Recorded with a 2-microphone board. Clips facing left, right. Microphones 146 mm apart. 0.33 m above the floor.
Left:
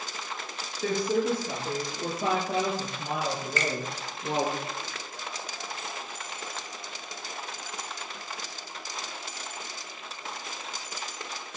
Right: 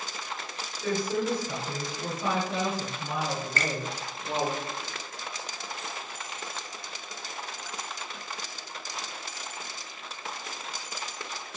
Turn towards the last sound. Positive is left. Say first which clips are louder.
# left 2 dB
turn(degrees=-50)  # may be behind; listen again after turning